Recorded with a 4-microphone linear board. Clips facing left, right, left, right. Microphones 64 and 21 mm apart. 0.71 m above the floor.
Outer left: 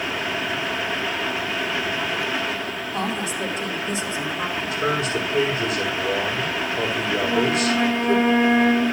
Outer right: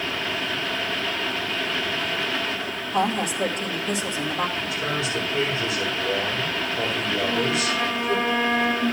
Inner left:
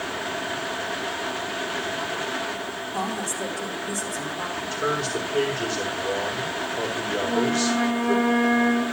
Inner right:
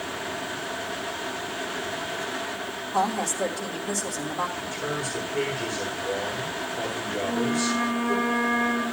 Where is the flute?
25° left (ahead or behind), 3 m.